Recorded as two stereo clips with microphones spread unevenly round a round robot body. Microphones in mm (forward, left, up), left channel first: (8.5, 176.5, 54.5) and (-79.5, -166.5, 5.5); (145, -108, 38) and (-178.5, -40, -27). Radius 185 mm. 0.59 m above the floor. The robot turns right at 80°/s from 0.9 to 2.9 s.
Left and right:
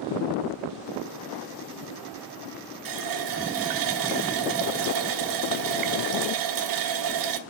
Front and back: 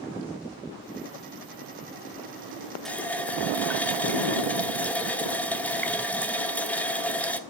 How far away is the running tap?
About 1.0 m.